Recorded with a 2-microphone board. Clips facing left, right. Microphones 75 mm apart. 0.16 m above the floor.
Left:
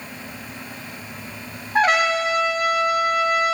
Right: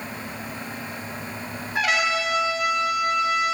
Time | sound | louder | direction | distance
1.8 | a trumpet | left 5 dB | 40° left (ahead or behind) | 1.1 m